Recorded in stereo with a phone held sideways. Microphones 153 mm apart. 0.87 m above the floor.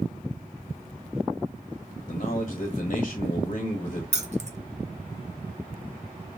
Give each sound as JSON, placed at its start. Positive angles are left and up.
{"t": 2.1, "sound": "a man speaking", "side_deg": 50, "distance_m": 0.9}
{"t": 4.1, "sound": "keys jangling", "side_deg": -50, "distance_m": 0.6}